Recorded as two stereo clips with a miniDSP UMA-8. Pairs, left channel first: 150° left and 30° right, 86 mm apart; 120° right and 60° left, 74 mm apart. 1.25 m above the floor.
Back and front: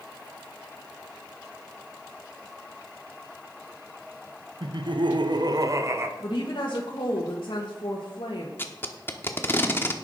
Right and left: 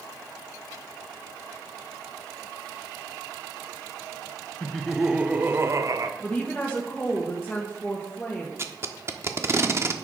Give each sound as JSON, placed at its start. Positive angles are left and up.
{"t": 4.6, "sound": "laughter", "azimuth_deg": -40, "distance_m": 1.0}
{"t": 6.2, "sound": "a woman speaking", "azimuth_deg": 160, "distance_m": 1.7}
{"t": 8.6, "sound": "tape being pulled", "azimuth_deg": 95, "distance_m": 1.0}